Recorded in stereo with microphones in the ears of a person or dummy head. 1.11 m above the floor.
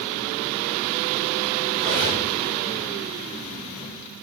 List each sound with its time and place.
1.8 s cutlery clinking: 60° right (ahead or behind), 4 m